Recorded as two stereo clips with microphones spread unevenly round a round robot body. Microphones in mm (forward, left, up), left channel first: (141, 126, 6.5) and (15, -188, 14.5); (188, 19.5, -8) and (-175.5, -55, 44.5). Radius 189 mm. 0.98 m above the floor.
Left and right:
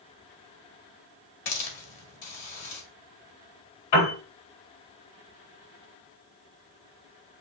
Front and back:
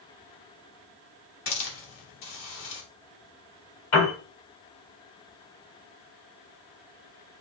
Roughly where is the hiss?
Left.